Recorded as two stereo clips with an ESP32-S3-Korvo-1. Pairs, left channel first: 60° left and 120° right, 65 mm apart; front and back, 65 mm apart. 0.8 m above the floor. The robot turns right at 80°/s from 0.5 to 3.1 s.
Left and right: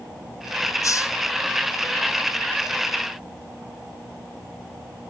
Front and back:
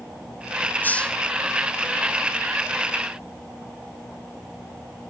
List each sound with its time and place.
0.8 s a hiss: 55° left, 0.6 m; by 1.1 s 80° left, 0.6 m